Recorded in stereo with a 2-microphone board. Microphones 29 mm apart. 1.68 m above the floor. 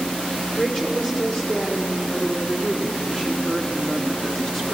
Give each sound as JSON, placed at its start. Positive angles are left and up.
{"t": 0.6, "sound": "a woman speaking", "side_deg": 20, "distance_m": 5.5}